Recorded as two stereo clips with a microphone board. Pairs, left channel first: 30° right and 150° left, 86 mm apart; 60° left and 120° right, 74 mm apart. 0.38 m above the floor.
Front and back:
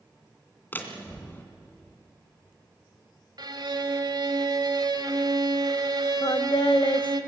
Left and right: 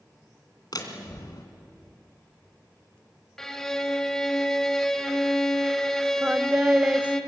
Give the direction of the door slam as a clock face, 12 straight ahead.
11 o'clock.